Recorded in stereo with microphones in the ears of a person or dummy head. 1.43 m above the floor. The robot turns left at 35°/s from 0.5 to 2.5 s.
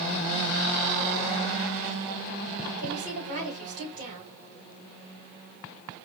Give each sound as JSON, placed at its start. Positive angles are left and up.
{"t": 2.8, "sound": "a woman speaking", "side_deg": -40, "distance_m": 3.0}